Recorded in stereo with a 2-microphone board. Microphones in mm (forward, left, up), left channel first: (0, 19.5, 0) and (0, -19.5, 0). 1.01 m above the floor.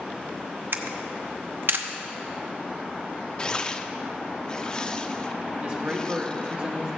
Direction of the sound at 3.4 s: 20° left (ahead or behind).